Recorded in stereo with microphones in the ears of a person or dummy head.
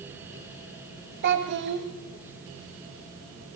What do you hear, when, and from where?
1.2 s a child speaking: 55° right (ahead or behind), 1.1 m